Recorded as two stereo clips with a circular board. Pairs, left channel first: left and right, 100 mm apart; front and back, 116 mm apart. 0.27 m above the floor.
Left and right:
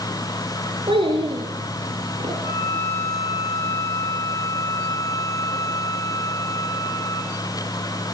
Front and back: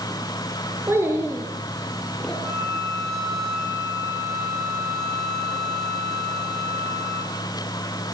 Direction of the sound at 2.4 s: 125° left.